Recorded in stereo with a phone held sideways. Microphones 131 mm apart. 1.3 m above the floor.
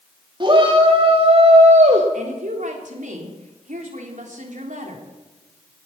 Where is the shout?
35° right (ahead or behind), 2.5 m; by 2.0 s 65° right (ahead or behind), 1.6 m.